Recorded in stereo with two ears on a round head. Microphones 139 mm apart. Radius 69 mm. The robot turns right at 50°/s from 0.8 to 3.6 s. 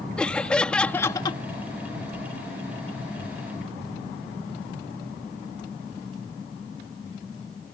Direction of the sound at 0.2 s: 5° left (ahead or behind).